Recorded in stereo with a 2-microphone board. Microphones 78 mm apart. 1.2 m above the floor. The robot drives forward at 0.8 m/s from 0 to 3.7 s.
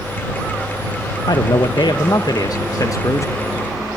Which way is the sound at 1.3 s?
70° left (ahead or behind).